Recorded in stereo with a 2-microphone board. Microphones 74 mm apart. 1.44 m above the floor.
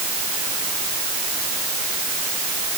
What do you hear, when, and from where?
Only background noise.